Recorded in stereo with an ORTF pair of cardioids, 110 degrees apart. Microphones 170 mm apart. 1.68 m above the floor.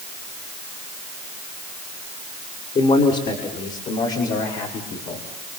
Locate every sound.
2.8 s a man speaking: 40° left, 6 m; by 5.6 s 65° left, 6.5 m